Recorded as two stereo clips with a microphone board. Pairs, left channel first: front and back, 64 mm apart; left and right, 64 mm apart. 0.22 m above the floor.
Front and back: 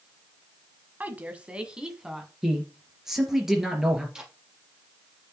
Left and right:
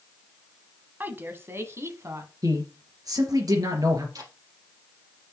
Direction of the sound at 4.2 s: 100° right.